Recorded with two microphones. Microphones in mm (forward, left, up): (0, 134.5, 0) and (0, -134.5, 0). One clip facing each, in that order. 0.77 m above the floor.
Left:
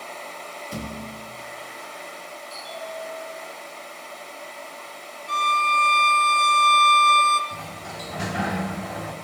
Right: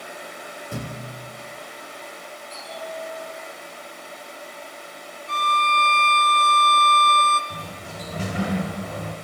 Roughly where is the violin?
Centre.